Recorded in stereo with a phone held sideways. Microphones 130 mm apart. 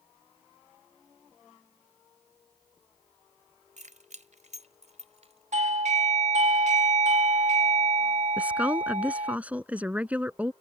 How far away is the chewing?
I don't hear chewing.